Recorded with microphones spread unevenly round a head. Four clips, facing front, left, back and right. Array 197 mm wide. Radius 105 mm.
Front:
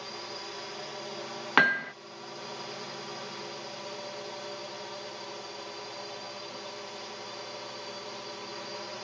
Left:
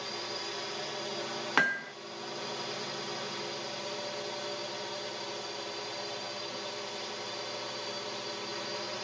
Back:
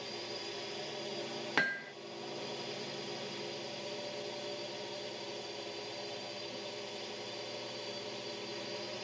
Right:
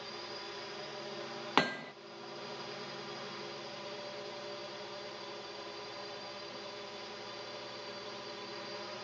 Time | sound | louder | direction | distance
0.0 | a drone | left 6 dB, front 2 dB | 115° left | ?
1.6 | hammering | left 2 dB, front 11 dB | 15° right | ?